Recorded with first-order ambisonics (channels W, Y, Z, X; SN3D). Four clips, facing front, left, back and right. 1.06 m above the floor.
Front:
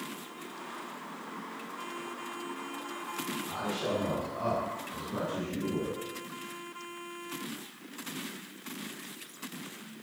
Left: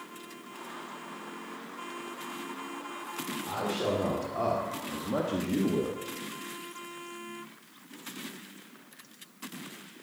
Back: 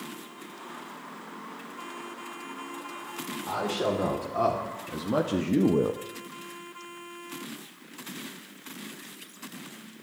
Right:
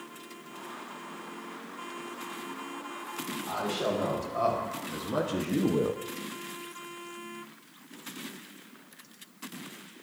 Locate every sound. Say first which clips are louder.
3.5 s a man speaking: even, back 7 dB; 165° left, 3 m; by 6.0 s 155° right, 0.6 m